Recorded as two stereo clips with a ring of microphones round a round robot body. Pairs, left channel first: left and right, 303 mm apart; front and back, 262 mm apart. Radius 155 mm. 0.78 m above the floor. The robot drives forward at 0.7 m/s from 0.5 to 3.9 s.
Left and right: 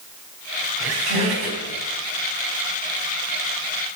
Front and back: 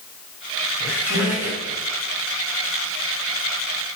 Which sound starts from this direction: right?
A squeak, at 0.8 s.